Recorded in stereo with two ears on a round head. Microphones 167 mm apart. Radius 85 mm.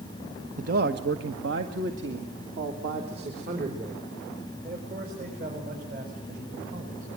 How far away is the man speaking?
About 1.3 m.